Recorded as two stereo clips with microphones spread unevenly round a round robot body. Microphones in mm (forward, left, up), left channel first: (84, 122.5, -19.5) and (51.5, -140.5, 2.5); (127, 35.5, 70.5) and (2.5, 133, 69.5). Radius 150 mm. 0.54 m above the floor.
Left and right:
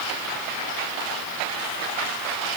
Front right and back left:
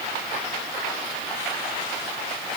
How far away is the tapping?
I don't hear tapping.